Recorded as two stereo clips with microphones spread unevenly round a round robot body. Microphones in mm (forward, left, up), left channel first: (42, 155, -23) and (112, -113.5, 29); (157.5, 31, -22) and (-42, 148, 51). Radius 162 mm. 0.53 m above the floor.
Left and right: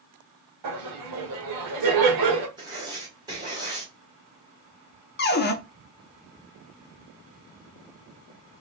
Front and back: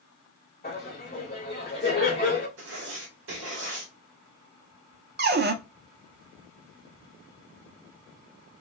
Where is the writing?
160° right, 0.9 m.